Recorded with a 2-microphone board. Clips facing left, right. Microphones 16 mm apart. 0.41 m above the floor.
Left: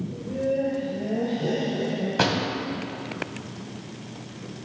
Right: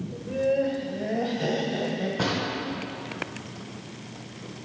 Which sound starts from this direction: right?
Laughter, at 0.1 s.